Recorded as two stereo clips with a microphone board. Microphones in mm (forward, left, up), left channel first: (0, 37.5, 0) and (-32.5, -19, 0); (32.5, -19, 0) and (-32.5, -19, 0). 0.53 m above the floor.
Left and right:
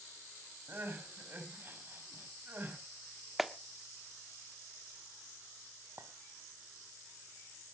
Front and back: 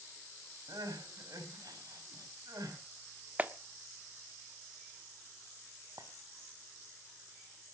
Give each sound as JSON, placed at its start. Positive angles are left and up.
{"t": 0.7, "sound": "crying", "azimuth_deg": -175, "distance_m": 4.5}
{"t": 3.4, "sound": "a clap", "azimuth_deg": 155, "distance_m": 1.0}
{"t": 6.0, "sound": "a clink", "azimuth_deg": -165, "distance_m": 2.5}